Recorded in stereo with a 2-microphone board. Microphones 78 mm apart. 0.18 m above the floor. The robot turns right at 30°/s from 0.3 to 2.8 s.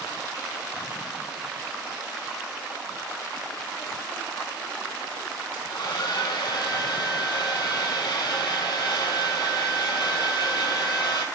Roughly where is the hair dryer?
Left.